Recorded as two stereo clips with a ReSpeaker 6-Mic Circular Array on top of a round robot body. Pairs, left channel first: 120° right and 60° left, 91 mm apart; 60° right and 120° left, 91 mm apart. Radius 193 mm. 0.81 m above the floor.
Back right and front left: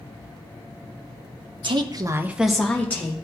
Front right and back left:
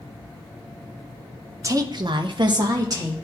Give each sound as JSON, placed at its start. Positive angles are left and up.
{"t": 1.6, "sound": "a woman speaking", "azimuth_deg": 70, "distance_m": 0.9}